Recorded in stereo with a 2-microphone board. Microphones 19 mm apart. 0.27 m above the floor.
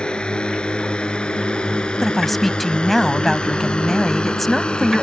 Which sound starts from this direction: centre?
A woman speaking, at 2.0 s.